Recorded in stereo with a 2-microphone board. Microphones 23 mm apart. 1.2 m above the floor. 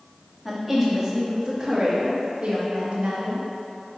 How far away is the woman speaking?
About 1.8 m.